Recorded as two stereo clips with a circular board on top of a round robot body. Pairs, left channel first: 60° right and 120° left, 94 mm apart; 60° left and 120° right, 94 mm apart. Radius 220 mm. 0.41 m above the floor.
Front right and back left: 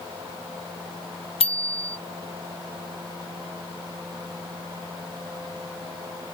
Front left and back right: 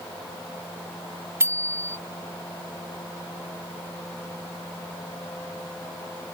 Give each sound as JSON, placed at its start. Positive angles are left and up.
{"t": 1.4, "sound": "a bicycle bell", "azimuth_deg": -55}